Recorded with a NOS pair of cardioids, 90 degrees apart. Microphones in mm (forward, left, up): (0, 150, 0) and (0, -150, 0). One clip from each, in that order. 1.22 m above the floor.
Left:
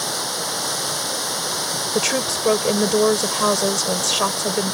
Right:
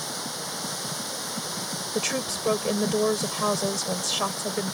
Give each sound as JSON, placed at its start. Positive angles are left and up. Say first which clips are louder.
{"t": 0.0, "sound": "running water", "louder": "left 8 dB", "azimuth_deg": 55}
{"t": 1.9, "sound": "a woman speaking", "louder": "left 6 dB", "azimuth_deg": 40}